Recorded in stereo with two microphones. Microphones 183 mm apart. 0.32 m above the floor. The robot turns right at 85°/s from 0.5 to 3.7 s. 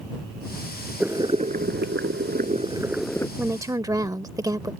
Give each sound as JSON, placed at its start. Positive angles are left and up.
{"t": 1.0, "sound": "boiling", "azimuth_deg": -175}
{"t": 3.4, "sound": "a woman speaking", "side_deg": -10}